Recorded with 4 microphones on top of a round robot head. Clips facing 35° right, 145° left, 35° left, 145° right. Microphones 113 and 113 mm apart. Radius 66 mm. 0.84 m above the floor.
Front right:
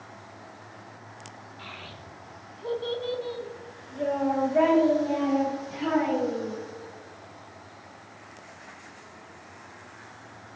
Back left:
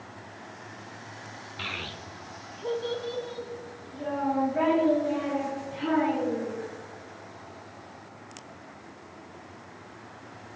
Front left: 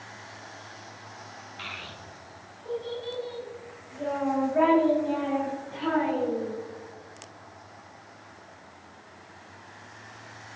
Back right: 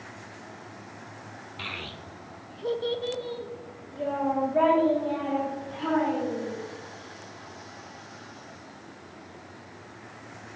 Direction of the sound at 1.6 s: 165° left.